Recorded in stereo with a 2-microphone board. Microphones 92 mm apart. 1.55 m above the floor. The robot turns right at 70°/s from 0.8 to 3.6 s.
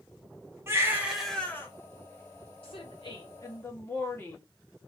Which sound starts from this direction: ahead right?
A baby crying, at 0.7 s.